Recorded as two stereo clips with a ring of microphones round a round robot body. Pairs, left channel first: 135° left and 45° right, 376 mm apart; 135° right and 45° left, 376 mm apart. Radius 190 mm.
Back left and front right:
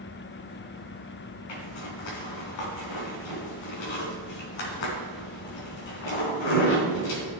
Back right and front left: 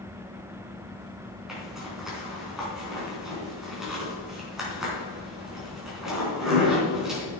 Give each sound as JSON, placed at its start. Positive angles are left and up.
{"t": 1.5, "sound": "a zipper", "azimuth_deg": 135, "distance_m": 3.5}